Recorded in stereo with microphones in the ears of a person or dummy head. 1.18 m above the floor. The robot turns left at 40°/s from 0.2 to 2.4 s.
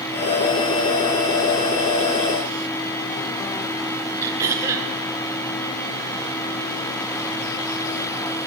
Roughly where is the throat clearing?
Centre.